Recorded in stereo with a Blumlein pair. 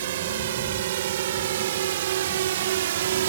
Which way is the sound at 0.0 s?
55° right.